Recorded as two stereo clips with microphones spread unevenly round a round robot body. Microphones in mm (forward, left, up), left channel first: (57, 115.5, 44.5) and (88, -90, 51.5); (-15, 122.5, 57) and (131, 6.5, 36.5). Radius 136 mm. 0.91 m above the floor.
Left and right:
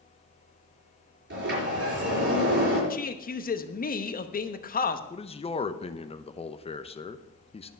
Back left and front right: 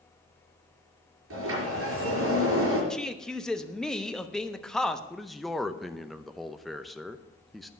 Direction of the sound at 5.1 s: 45° left.